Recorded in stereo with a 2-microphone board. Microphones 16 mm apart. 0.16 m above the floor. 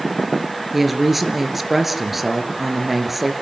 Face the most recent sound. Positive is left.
turn(degrees=-10)  # may be behind; listen again after turning